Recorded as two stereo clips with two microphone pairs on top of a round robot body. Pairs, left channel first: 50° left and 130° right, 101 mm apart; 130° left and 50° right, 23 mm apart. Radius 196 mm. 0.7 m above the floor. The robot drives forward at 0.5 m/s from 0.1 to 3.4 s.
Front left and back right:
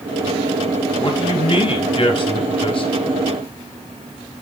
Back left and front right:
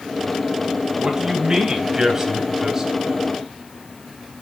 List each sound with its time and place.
1.0 s a man speaking: 15° left, 4 m; by 2.9 s 20° left, 3 m